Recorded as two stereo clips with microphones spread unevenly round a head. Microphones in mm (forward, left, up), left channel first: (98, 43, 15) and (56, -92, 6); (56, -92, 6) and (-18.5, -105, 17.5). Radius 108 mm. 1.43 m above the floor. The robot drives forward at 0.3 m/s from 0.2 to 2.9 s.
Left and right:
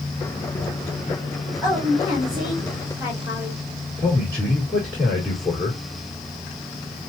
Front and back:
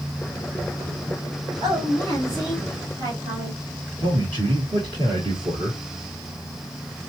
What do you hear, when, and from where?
1.6 s a woman speaking: 170° left, 2.5 m
4.0 s a man speaking: 145° left, 2.5 m